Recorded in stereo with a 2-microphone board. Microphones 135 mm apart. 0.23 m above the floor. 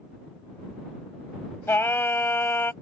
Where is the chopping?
No chopping in this recording.